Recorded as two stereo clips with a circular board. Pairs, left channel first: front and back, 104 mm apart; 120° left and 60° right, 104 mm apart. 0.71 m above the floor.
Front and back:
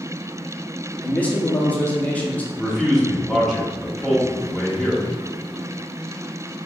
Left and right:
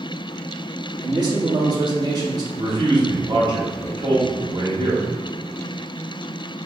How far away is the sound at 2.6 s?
About 1.4 m.